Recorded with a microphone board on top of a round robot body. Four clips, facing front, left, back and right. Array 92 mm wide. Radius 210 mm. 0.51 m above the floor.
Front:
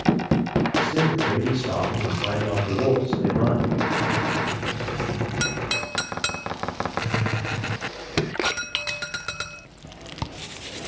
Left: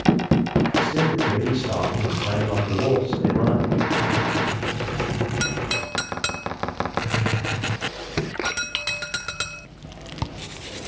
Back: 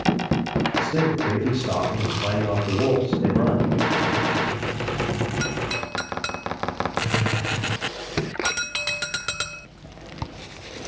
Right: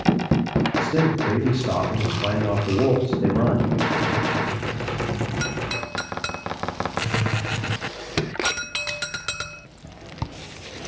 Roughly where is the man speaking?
Right.